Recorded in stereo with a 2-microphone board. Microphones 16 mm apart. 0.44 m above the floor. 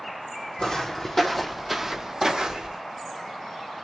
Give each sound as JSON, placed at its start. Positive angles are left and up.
{"t": 0.6, "sound": "footsteps", "side_deg": 40, "distance_m": 1.0}